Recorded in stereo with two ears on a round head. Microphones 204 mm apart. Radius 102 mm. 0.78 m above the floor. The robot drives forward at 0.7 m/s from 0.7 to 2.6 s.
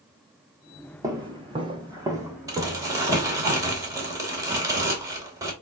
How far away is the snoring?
No snoring in this recording.